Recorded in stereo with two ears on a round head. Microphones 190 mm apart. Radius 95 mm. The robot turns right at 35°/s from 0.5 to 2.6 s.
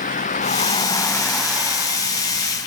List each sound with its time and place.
0.0 s a vehicle: 40° left (ahead or behind); by 2.7 s 50° right (ahead or behind)